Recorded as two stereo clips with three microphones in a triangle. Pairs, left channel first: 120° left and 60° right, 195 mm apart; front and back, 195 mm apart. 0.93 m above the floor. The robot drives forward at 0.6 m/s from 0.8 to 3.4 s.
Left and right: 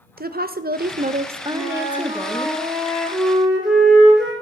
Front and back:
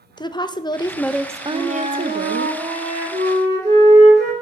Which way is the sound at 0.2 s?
65° right.